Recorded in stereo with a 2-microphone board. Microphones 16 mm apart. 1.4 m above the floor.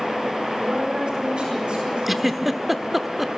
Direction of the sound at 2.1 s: 10° right (ahead or behind).